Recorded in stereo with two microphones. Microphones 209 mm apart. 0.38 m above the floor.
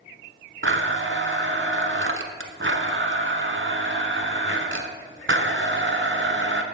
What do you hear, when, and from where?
0.6 s a blender: 65° right (ahead or behind), 1.0 m